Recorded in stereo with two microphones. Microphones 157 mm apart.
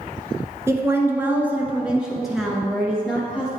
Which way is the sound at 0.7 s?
15° right (ahead or behind).